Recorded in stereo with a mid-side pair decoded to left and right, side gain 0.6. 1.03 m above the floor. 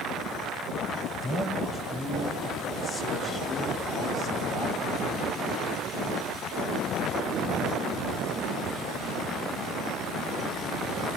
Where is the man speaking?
25° left, 5 m; by 5.1 s 60° left, 4.5 m.